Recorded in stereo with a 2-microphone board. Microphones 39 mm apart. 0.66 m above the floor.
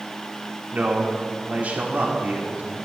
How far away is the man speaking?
About 2 m.